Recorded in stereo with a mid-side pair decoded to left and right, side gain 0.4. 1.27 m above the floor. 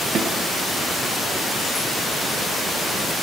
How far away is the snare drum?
About 8 m.